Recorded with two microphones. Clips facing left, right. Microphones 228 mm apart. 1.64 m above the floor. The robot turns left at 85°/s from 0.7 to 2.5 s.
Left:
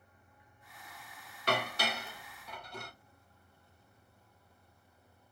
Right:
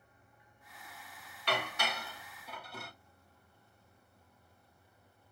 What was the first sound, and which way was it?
Dishes clattering, 45° left (ahead or behind).